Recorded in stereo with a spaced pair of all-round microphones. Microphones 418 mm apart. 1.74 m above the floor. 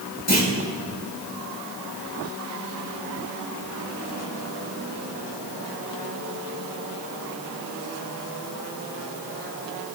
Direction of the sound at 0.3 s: 35° left (ahead or behind).